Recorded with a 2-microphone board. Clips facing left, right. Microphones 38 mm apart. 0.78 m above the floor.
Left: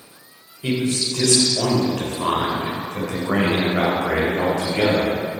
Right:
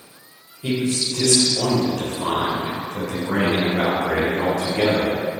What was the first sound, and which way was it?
A man speaking, 45° left (ahead or behind).